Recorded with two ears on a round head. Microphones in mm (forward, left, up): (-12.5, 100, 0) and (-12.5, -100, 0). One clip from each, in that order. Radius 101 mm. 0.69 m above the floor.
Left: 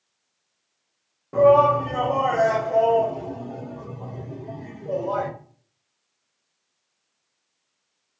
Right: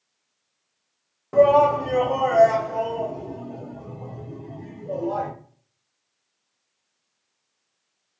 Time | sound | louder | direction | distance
1.3 | a shout | even | 35° right (ahead or behind) | 0.8 m